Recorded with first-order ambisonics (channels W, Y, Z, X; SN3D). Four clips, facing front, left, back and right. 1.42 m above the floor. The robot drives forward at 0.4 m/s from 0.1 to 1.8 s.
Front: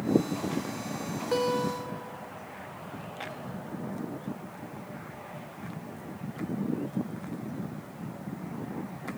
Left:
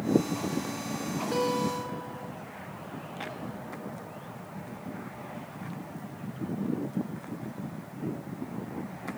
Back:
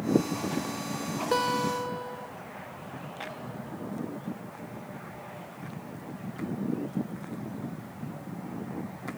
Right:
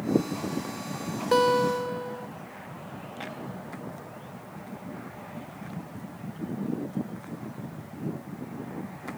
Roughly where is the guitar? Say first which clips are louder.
Right 8 dB, back 1 dB; right.